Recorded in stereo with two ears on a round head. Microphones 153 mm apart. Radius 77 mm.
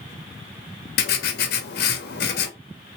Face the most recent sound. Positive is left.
turn(degrees=65)  # may be behind; listen again after turning